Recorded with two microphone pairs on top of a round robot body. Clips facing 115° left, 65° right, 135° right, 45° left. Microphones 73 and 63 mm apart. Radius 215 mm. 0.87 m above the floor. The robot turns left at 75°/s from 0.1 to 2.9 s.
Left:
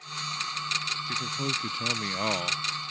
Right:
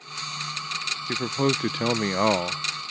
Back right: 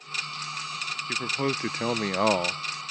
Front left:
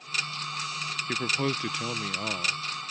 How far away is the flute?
I don't hear a flute.